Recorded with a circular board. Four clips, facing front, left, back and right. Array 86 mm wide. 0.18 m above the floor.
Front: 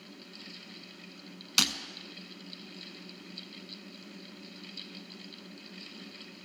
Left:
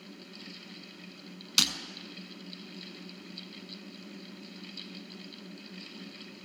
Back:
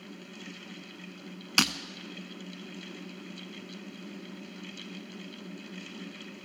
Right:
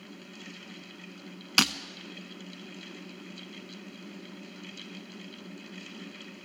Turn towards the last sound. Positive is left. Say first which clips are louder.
# right 7 dB, back 5 dB
turn(degrees=-120)